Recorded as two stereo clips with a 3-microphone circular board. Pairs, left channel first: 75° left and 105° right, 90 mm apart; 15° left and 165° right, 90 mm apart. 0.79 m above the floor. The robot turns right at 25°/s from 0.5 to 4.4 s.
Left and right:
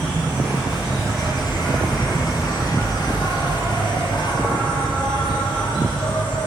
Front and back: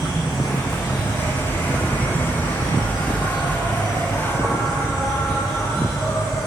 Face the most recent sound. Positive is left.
turn(degrees=70)